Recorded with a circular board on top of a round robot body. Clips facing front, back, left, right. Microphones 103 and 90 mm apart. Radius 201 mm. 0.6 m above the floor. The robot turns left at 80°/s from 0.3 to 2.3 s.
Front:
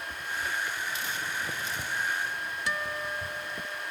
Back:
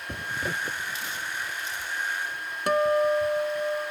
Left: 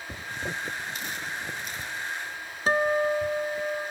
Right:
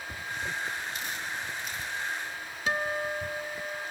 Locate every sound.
0.1 s a zipper: 155° left; by 3.7 s 5° right
2.7 s a guitar: 145° left